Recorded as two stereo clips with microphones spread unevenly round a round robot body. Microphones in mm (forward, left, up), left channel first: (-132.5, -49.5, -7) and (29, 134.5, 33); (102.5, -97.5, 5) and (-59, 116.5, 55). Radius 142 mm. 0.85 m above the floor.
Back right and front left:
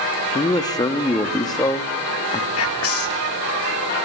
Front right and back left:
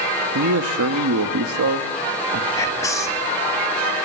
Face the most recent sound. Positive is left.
turn(degrees=-130)